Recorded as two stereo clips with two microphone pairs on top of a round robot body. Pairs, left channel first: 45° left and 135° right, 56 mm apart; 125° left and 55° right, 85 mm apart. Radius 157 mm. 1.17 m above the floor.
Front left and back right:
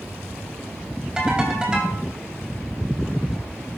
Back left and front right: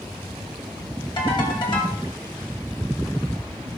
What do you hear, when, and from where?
1.2 s a ringtone: 150° left, 3.5 m